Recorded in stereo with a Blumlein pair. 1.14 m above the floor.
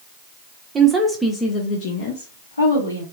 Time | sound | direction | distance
0.8 | a woman speaking | 20° right | 0.6 m